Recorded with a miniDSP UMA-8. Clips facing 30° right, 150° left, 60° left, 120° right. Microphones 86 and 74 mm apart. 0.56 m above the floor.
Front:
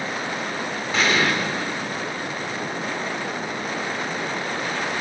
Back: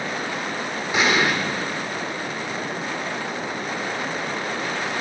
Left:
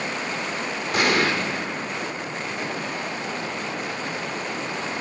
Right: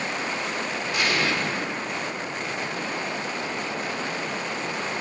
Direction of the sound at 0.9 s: 80° left.